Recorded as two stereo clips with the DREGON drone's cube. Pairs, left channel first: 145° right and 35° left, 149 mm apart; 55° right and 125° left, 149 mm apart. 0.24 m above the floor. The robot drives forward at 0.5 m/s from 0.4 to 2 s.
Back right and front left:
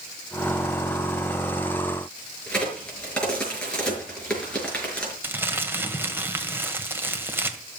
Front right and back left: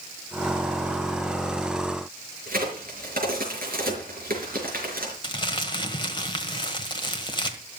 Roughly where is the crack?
Behind left.